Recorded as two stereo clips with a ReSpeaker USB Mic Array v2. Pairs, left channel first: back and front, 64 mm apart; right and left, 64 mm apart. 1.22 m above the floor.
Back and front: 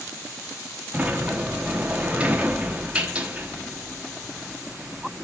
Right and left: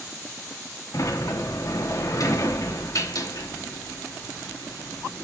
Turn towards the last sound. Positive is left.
turn(degrees=-70)